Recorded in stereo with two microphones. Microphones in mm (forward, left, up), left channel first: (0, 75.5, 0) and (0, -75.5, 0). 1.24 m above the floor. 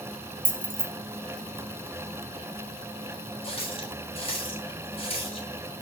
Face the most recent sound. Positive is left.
turn(degrees=40)  # may be behind; listen again after turning